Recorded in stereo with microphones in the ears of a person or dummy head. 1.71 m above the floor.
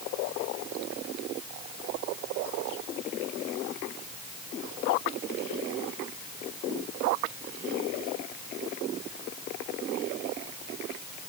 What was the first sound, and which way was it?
Only background noise.